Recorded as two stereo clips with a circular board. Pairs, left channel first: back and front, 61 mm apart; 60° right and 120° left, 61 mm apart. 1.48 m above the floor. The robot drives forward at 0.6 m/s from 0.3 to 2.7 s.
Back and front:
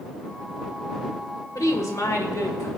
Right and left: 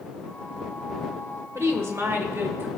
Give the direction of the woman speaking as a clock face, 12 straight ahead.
7 o'clock.